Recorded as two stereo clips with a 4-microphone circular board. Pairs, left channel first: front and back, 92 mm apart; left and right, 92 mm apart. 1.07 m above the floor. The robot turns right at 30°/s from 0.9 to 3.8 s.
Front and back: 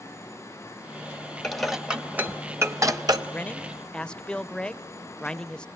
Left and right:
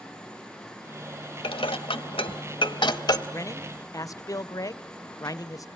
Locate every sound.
1.4 s dishes clattering: 85° left, 1.0 m; by 3.2 s 135° left, 1.0 m
3.3 s a man speaking: 60° left, 0.5 m; by 5.7 s 75° left, 0.5 m